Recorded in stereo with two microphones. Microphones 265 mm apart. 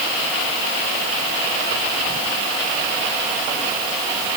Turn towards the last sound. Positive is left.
No sound to turn to.